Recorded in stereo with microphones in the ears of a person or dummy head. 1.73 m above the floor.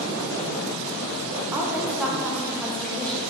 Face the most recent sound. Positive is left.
turn(degrees=5)  # may be behind; listen again after turning